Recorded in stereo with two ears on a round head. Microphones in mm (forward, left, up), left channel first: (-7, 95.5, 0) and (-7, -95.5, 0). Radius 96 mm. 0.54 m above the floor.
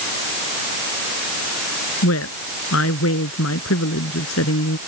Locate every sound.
2.0 s a woman speaking: 70° left (ahead or behind)